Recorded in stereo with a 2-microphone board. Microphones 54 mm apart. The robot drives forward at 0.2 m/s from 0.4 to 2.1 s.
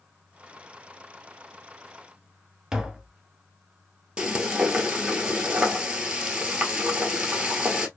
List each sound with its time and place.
2.7 s tapping: 10° right (ahead or behind), 0.7 m
4.2 s frying: 15° right (ahead or behind), 1.0 m